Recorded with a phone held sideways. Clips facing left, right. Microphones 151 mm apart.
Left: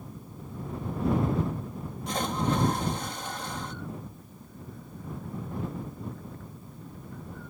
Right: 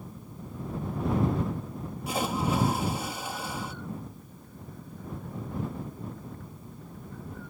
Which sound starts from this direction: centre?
A splash, at 2.1 s.